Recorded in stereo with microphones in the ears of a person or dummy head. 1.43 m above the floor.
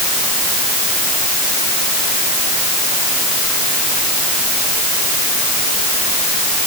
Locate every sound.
Only background noise.